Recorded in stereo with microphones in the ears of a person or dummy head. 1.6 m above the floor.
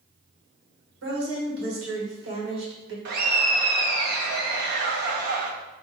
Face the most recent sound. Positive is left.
turn(degrees=-55)  # may be behind; listen again after turning